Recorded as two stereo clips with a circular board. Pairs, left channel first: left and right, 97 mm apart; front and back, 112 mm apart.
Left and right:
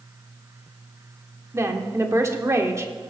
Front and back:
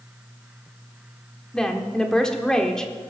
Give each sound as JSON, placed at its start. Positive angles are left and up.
{"t": 1.5, "sound": "a woman speaking", "azimuth_deg": -80, "distance_m": 1.2}